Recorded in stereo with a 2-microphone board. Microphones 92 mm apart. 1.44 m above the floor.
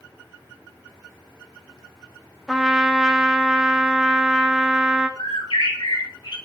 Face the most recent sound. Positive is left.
turn(degrees=65)  # may be behind; listen again after turning